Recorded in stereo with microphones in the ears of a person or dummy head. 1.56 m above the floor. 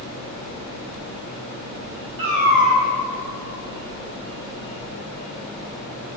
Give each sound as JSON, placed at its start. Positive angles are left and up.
{"t": 2.2, "sound": "a cat meowing", "side_deg": -60, "distance_m": 1.7}